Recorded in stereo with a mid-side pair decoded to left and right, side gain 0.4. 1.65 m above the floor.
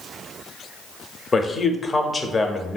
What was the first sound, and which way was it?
A man speaking, 35° left.